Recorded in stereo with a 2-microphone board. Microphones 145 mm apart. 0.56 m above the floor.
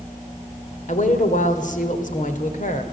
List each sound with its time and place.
0.9 s a woman speaking: 60° left (ahead or behind), 2.5 m